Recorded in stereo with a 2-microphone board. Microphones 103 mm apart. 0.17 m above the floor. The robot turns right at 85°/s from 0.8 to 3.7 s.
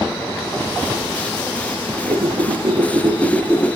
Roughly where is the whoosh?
Behind right.